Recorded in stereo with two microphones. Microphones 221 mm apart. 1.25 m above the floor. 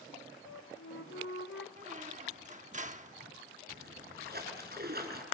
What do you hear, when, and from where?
0.5 s a flute: 75° left (ahead or behind), 1.5 m
1.8 s a squeak: 35° right (ahead or behind), 0.9 m
3.7 s a splash: 45° right (ahead or behind), 5 m